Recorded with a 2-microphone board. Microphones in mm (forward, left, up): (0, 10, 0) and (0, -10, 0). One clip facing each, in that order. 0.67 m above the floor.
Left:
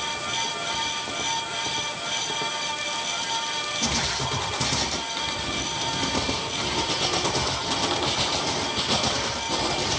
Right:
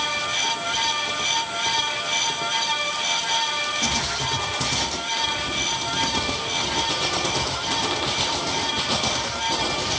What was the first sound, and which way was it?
Only background noise.